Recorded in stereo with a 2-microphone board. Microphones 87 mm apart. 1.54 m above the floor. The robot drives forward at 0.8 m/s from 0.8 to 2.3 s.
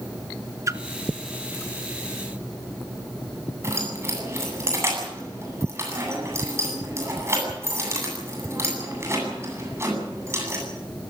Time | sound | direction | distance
0.7 | a splash | 35° right (ahead or behind) | 1.1 m
3.6 | keys jangling | 30° right (ahead or behind) | 8.5 m